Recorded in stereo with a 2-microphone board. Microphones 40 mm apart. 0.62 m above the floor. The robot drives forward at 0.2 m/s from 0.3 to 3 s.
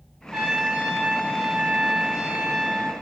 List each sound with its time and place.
0.3 s a trumpet: 20° right (ahead or behind), 0.8 m